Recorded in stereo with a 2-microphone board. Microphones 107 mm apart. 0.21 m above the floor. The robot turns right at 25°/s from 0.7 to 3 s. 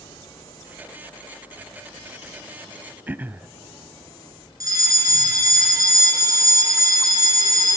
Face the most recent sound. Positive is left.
turn(degrees=-35)  # may be behind; listen again after turning